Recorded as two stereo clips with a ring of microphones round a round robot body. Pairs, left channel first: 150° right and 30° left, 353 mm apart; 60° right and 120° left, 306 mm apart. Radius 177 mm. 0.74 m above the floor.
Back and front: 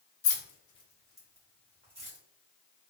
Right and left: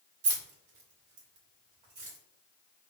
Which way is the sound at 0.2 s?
160° left.